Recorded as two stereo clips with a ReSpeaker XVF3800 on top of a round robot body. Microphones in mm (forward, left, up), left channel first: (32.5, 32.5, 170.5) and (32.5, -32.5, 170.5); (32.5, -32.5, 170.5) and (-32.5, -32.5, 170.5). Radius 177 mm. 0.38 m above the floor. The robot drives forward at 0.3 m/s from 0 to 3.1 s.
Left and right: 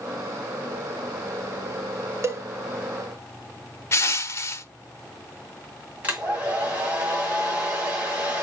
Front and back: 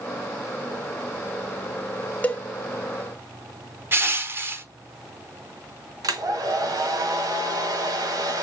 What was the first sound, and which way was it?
A cowbell, 60° right.